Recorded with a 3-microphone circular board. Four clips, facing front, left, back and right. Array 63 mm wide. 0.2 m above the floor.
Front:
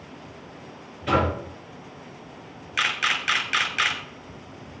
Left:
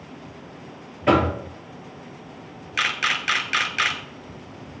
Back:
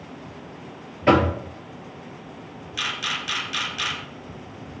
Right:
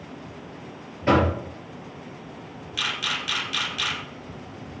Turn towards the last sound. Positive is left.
turn(degrees=50)